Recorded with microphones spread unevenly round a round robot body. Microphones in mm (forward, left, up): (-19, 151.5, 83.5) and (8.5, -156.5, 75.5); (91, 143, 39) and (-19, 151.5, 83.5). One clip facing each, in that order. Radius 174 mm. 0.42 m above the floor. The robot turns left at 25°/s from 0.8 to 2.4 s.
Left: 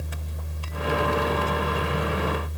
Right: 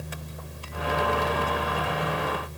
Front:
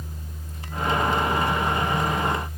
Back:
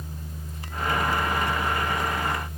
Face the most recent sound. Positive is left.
No sound to turn to.